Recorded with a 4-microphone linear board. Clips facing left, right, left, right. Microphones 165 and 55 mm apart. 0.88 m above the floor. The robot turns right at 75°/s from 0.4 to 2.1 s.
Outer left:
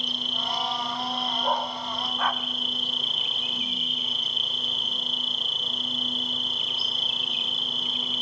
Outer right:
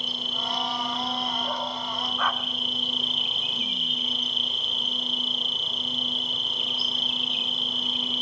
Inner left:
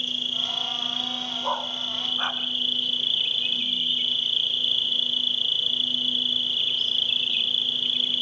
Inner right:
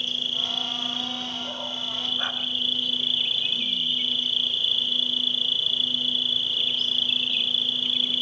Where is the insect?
125° right, 4.5 m; by 8.2 s straight ahead, 4.5 m.